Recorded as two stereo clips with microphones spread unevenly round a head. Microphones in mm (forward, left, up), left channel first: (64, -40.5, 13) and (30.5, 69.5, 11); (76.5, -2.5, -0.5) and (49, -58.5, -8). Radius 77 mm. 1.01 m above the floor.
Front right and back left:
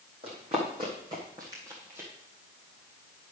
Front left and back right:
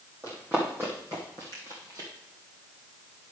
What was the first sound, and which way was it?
Running footsteps, 165° left.